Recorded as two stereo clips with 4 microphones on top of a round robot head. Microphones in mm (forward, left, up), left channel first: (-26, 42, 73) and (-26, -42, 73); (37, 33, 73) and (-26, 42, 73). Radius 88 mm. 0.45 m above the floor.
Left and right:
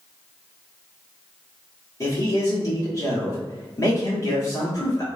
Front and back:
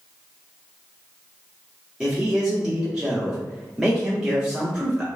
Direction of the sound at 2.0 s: 95° left.